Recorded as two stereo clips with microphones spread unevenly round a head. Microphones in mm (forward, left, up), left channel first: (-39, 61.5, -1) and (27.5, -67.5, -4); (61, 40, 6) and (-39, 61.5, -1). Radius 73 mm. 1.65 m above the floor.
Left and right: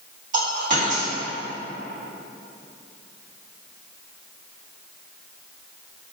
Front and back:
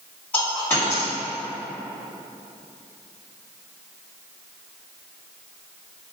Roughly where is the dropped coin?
Right.